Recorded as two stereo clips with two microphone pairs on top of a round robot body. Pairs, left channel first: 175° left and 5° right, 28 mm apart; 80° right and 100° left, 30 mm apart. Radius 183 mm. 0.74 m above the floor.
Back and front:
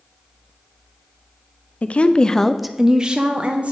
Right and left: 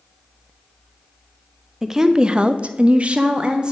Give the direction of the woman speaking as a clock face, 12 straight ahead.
6 o'clock.